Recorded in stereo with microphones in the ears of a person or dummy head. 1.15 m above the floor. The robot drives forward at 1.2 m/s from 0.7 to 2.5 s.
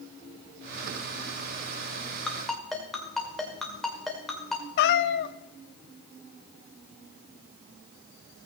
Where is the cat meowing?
60° left (ahead or behind), 0.6 m.